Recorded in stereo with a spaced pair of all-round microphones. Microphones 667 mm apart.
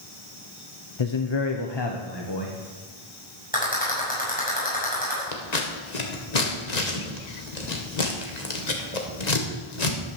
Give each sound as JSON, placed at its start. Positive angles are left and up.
{"t": 1.0, "sound": "a man speaking", "side_deg": 45, "distance_m": 0.8}
{"t": 3.5, "sound": "a rattle", "side_deg": 10, "distance_m": 6.5}
{"t": 5.3, "sound": "scissors", "side_deg": 80, "distance_m": 2.0}